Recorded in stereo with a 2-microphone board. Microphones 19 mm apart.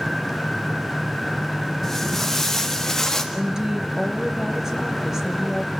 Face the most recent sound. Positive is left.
turn(degrees=-25)  # may be behind; listen again after turning